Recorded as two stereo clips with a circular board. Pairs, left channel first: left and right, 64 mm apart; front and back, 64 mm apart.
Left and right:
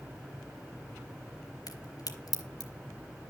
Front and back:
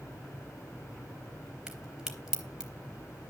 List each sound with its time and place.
1.7 s a crack: 100° left, 3.5 m